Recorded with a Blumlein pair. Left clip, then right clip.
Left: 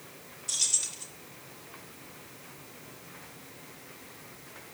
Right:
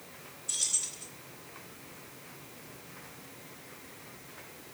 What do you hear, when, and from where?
0.5 s keys jangling: 25° left, 3 m